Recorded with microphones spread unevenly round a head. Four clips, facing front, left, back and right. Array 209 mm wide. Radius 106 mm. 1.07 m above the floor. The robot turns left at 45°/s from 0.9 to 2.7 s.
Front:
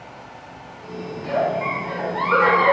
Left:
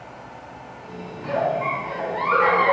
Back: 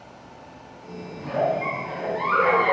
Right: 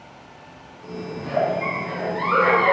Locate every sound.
1.2 s a giggle: 65° left, 3 m; by 2.7 s 5° right, 3 m